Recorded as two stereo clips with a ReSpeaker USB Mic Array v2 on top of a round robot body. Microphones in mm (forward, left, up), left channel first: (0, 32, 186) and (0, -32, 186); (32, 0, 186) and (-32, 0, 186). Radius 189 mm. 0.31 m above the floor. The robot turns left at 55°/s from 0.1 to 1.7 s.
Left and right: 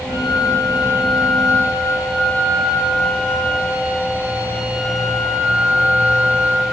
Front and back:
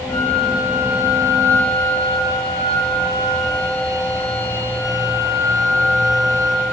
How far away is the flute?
About 10 m.